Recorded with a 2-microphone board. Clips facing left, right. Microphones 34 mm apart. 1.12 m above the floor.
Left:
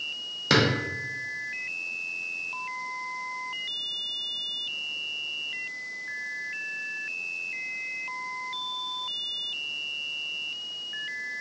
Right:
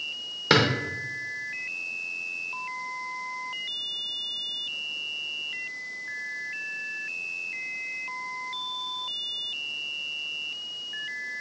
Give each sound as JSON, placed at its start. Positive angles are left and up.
{"t": 0.5, "sound": "a drawer", "side_deg": -15, "distance_m": 0.8}